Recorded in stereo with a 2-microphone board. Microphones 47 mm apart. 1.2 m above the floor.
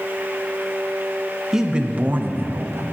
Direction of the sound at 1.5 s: 10° right (ahead or behind).